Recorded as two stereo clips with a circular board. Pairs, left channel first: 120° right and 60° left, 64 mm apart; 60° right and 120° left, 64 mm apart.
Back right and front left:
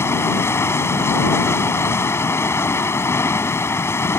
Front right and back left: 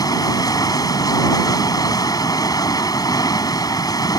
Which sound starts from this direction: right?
Running water, at 0.0 s.